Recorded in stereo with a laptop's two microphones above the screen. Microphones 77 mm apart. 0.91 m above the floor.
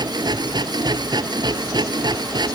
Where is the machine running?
65° right (ahead or behind).